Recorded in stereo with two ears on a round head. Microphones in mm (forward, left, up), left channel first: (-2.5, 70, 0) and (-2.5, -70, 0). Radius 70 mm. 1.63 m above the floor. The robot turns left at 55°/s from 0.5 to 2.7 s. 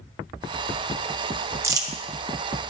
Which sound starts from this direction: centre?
Crumpling, at 1.6 s.